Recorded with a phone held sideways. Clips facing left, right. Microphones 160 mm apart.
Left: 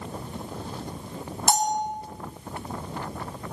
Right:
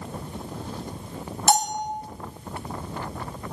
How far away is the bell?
About 1.3 m.